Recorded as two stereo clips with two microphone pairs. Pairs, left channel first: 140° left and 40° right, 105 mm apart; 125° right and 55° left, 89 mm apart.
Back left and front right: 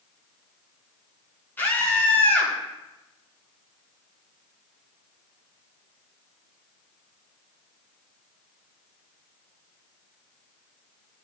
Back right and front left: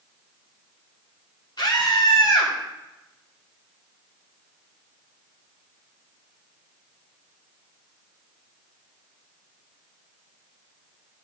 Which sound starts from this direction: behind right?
A scream, at 1.6 s.